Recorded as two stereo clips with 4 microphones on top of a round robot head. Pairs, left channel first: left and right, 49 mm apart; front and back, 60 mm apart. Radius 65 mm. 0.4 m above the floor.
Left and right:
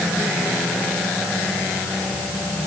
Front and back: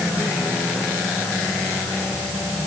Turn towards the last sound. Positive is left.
No sound to turn to.